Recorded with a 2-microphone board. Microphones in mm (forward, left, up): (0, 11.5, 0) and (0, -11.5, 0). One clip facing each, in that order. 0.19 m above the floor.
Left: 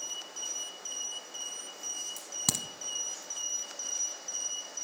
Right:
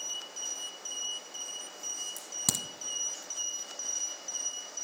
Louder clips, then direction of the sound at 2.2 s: Left 1 dB; 10° left (ahead or behind).